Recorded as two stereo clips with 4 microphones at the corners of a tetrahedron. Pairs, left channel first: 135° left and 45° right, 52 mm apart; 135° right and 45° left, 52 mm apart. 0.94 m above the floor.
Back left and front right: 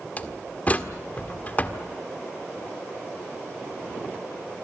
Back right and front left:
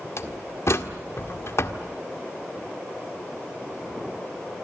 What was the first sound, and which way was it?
A door slam, 165° right.